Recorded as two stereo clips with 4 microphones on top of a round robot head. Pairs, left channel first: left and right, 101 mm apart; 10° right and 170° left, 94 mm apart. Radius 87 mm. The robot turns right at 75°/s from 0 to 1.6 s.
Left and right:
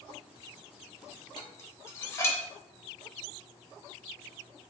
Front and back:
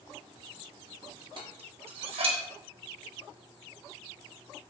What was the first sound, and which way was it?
Dishes clattering, 135° left.